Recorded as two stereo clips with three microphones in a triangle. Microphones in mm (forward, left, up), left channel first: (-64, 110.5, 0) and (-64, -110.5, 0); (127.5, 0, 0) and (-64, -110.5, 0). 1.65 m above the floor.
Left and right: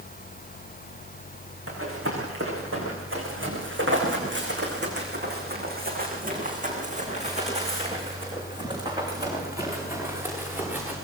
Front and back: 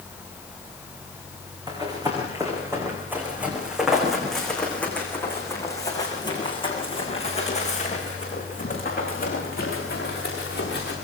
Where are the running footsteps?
80° right, 8 m; by 10.9 s 5° right, 9.5 m.